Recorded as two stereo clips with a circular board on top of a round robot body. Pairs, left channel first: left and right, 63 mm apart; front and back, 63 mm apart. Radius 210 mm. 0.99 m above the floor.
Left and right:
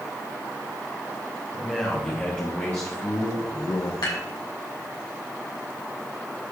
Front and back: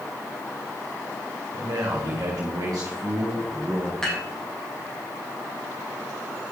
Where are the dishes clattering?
80° left, 3.5 m.